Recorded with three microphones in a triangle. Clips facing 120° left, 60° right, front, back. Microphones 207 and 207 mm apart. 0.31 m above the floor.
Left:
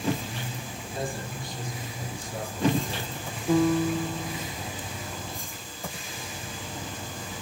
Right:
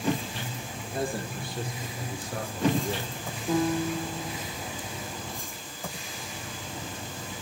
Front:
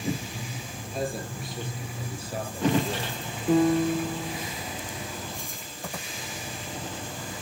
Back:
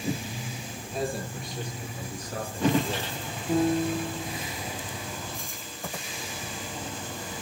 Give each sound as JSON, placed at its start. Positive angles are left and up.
{"t": 0.8, "sound": "a man speaking", "azimuth_deg": -90, "distance_m": 6.5}
{"t": 3.5, "sound": "a piano", "azimuth_deg": 35, "distance_m": 5.0}